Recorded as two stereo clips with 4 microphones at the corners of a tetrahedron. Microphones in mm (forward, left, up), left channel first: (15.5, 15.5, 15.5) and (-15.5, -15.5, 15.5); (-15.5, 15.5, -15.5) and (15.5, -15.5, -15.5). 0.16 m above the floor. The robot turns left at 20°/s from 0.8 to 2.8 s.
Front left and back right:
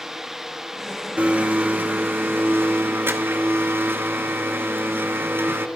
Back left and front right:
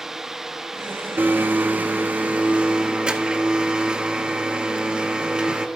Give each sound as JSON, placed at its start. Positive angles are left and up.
{"t": 1.2, "sound": "a blender", "azimuth_deg": -80, "distance_m": 0.8}